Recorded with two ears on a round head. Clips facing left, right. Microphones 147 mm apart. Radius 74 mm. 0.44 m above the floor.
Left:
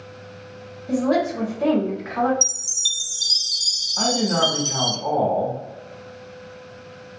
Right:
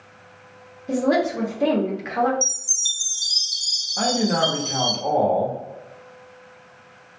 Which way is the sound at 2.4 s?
40° left (ahead or behind).